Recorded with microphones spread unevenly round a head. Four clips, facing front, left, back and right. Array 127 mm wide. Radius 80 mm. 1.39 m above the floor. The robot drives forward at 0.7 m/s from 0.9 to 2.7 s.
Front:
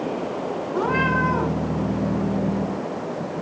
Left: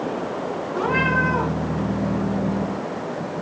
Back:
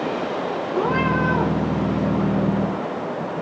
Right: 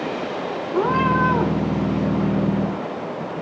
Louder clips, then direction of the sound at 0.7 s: Right 3 dB, back 1 dB; 70° right.